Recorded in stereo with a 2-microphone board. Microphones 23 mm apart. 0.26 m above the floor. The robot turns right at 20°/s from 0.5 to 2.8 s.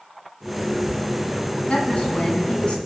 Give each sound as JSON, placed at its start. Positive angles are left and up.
{"t": 1.7, "sound": "a woman speaking", "side_deg": 60, "distance_m": 1.9}